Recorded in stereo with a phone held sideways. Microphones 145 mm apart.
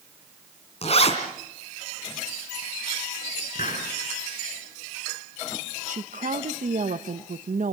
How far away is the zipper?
About 3 m.